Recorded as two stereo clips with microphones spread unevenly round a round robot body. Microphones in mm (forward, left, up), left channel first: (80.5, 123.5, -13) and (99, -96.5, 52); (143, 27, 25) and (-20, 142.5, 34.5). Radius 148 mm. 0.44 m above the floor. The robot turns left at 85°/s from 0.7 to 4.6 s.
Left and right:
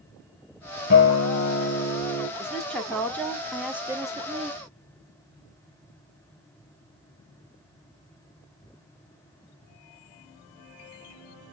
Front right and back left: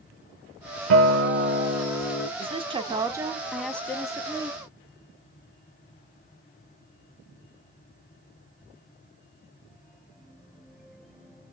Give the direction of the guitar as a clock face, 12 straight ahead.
7 o'clock.